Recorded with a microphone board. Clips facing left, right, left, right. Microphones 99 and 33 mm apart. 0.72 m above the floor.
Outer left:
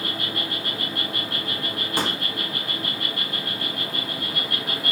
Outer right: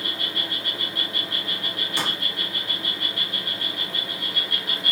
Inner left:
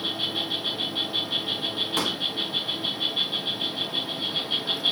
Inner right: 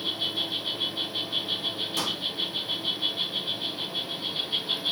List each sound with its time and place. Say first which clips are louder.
0.0 s an insect: outer left 3 dB, inner left 1 dB; 75° left (ahead or behind), 1.8 m
2.0 s a pop: outer left 4 dB, inner left 3 dB; 45° left (ahead or behind), 1.0 m